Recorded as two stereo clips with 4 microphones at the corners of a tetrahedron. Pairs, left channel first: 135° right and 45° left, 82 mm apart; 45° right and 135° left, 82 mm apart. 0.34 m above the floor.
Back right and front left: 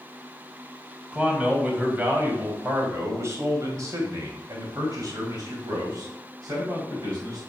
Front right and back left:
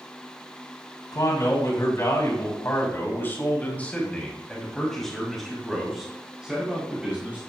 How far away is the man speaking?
About 2.5 m.